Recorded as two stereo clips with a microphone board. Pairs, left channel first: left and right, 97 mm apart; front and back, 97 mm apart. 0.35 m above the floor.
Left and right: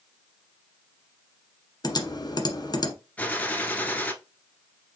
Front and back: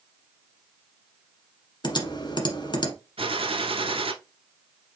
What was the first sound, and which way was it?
Typing on a keyboard, 40° left.